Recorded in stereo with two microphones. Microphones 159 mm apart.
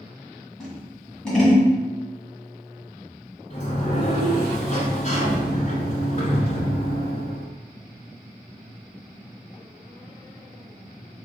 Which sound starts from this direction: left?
A sliding door, at 3.5 s.